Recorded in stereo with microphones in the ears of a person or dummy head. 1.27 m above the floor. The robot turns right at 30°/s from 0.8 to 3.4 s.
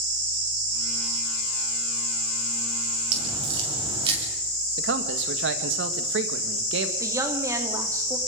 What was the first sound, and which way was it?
A crack, 40° right (ahead or behind).